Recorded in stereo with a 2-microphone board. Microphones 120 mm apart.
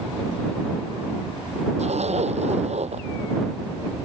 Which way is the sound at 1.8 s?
65° right (ahead or behind).